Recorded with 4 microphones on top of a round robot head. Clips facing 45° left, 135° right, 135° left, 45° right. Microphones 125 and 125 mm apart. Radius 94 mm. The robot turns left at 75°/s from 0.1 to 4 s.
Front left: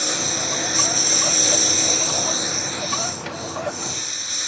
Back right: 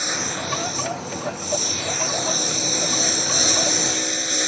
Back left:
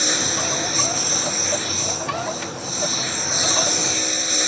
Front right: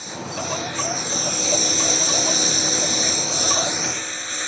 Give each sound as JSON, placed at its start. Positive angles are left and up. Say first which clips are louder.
{"t": 0.0, "sound": "a lawn mower", "louder": "front left 1 dB, back left 4 dB", "azimuth_deg": 125}